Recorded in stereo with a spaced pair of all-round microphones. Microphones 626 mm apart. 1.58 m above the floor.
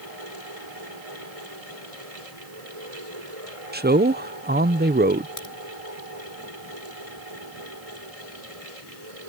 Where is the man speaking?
15° right (ahead or behind).